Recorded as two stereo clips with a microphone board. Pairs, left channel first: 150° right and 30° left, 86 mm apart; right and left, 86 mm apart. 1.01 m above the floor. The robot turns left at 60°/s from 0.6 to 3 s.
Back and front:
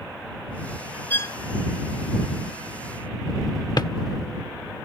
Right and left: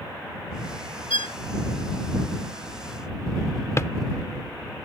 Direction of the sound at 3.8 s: 135° right.